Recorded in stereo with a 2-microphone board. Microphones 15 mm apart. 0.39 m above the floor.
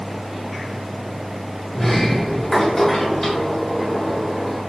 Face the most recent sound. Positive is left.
turn(degrees=25)  # may be behind; listen again after turning